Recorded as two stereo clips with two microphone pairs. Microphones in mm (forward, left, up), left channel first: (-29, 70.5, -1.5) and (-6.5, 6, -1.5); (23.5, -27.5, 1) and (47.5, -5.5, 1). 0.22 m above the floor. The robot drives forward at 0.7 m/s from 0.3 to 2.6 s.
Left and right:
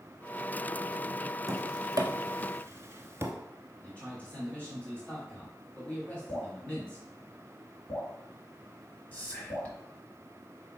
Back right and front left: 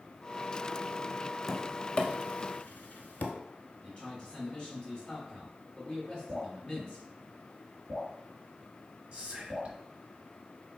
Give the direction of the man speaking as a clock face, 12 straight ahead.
6 o'clock.